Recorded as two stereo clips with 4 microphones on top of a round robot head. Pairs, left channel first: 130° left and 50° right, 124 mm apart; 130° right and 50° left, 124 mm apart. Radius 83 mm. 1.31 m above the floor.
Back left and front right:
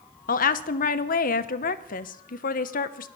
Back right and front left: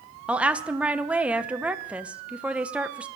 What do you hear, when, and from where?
0.3 s a woman speaking: 130° left, 0.9 m